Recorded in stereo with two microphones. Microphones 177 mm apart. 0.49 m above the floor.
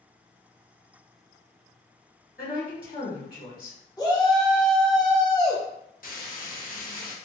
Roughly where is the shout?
Left.